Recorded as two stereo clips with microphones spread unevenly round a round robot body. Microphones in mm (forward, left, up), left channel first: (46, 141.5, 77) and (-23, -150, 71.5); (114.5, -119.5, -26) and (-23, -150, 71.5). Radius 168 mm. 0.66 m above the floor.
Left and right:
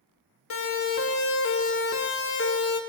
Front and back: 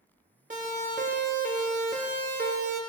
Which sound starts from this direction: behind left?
A siren, at 0.5 s.